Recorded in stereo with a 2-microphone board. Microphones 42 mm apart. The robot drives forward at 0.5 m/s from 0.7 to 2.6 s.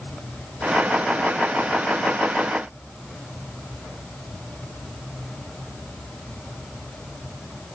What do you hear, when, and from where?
Only background noise.